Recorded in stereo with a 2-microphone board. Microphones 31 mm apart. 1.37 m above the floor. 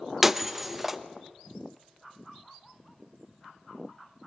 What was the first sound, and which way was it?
Breaking glass, 5° right (ahead or behind).